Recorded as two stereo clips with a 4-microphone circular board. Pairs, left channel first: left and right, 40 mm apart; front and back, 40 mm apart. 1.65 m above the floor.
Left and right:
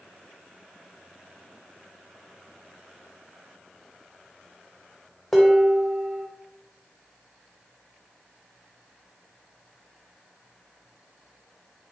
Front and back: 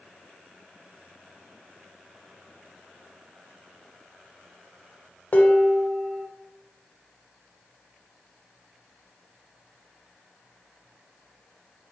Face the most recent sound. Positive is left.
turn(degrees=5)